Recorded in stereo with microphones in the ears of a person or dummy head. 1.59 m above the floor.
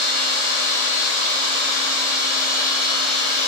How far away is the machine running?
About 0.9 m.